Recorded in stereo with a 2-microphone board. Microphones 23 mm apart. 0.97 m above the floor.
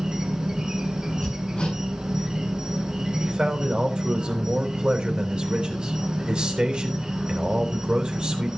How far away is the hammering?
About 6 m.